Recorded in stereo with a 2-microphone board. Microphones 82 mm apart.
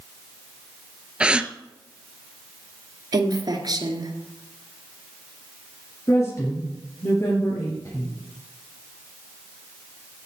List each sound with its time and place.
1.2 s a gasp: 15° right (ahead or behind), 0.6 m
3.1 s a woman speaking: 60° right (ahead or behind), 2.0 m
6.1 s a woman speaking: 40° left (ahead or behind), 3 m